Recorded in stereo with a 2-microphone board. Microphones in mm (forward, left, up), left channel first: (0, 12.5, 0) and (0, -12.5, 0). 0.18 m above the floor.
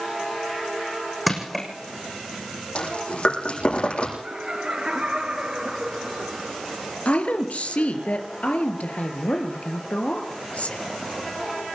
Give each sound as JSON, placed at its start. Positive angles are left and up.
{"t": 1.3, "sound": "crushing", "side_deg": -5, "distance_m": 6.5}
{"t": 2.8, "sound": "chewing", "side_deg": 50, "distance_m": 9.5}
{"t": 4.2, "sound": "laughter", "side_deg": -35, "distance_m": 3.0}
{"t": 7.0, "sound": "a woman speaking", "side_deg": 65, "distance_m": 4.0}